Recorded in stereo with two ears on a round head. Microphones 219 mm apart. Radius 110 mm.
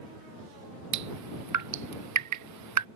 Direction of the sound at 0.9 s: 75° right (ahead or behind).